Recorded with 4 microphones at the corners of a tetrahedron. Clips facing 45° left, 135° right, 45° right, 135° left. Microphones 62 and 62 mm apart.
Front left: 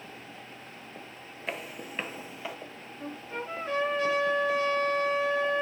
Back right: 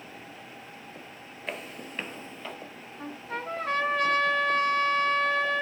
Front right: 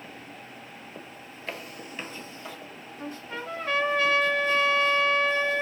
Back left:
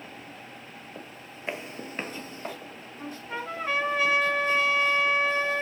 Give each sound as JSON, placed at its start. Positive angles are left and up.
{"t": 1.5, "sound": "footsteps", "azimuth_deg": 130, "distance_m": 0.9}
{"t": 3.0, "sound": "a trumpet", "azimuth_deg": -150, "distance_m": 2.0}